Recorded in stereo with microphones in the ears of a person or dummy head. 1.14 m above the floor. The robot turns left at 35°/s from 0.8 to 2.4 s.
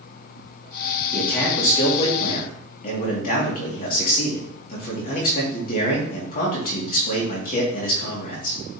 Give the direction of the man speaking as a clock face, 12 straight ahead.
6 o'clock.